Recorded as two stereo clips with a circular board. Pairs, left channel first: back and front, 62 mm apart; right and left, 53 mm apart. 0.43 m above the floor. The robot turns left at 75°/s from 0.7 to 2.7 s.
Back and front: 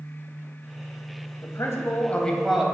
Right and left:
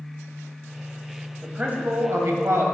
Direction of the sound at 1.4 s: 165° left.